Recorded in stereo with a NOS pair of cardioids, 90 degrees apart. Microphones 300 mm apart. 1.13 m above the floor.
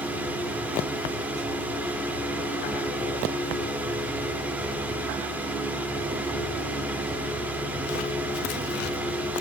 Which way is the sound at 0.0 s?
5° right.